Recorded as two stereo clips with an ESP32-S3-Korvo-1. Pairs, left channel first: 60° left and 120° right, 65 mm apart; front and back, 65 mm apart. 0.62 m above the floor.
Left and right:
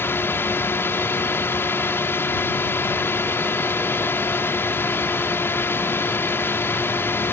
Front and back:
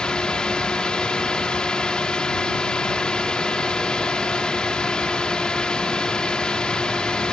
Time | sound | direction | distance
0.0 | a drone | 70° left | ?